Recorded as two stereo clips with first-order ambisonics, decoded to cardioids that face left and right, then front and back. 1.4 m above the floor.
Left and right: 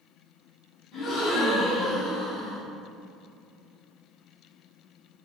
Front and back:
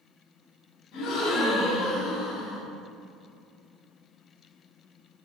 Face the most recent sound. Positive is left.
turn(degrees=15)